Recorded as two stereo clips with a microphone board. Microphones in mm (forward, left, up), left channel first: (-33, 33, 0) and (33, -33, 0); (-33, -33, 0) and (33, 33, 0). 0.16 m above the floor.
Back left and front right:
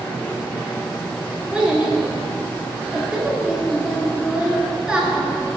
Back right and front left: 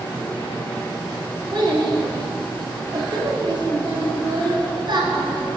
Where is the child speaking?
35° left, 1.1 m.